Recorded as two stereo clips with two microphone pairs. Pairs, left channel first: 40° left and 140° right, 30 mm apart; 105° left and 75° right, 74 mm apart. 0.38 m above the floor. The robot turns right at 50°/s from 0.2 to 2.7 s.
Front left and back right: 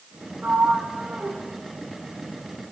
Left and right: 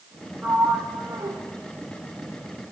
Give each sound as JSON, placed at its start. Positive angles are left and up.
{"t": 0.4, "sound": "a sliding door", "azimuth_deg": -160, "distance_m": 2.5}